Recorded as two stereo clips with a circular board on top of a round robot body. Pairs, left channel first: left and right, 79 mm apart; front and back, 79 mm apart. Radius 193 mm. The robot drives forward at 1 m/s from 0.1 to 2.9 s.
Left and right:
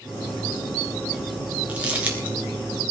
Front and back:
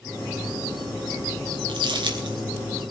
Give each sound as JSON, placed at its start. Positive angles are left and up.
{"t": 1.7, "sound": "crumpling", "azimuth_deg": -165, "distance_m": 3.0}